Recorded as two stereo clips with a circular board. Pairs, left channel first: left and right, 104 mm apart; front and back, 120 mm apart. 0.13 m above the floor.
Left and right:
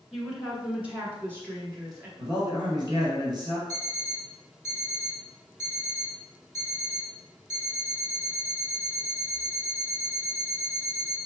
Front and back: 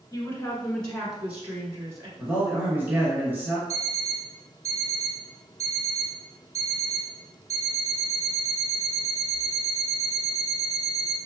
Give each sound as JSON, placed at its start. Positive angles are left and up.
{"t": 0.1, "sound": "a woman speaking", "azimuth_deg": -5, "distance_m": 1.2}
{"t": 2.2, "sound": "a man speaking", "azimuth_deg": -110, "distance_m": 1.5}
{"t": 3.7, "sound": "an alarm clock", "azimuth_deg": -10, "distance_m": 1.2}